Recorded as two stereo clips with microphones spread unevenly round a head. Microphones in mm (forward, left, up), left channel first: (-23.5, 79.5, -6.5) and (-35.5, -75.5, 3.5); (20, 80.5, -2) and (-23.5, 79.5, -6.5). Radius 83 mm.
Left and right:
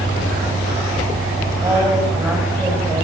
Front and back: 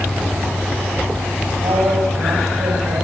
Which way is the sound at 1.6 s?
170° right.